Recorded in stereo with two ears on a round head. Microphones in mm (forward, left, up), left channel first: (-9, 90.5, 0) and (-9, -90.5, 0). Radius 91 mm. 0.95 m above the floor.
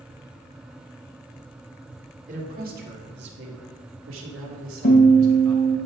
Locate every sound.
2.3 s a man speaking: 40° right (ahead or behind), 1.8 m; by 5.8 s 80° right, 2.5 m
4.8 s a guitar: 50° left (ahead or behind), 1.6 m